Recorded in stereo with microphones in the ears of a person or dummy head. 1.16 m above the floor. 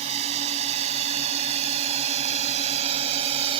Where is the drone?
35° right (ahead or behind).